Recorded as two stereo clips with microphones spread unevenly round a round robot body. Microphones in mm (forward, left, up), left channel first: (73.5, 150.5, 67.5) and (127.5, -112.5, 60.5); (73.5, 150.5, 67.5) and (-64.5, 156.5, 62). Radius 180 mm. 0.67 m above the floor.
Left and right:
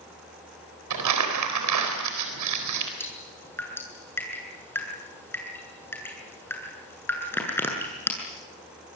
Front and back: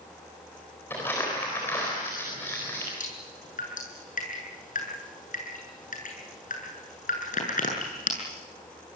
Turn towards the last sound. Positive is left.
turn(degrees=20)